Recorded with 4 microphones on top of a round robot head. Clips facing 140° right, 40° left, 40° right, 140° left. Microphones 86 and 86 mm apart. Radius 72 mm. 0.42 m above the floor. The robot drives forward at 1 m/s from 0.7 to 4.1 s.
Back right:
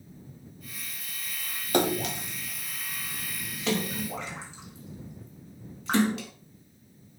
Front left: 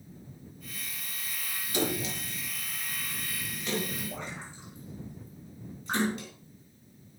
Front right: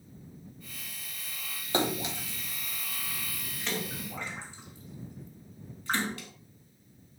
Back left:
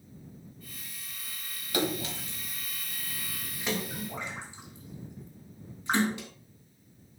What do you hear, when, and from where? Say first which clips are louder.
1.7 s a splash: back right 6 dB, front right 1 dB; 100° right, 2.0 m; by 6.3 s 145° right, 3.5 m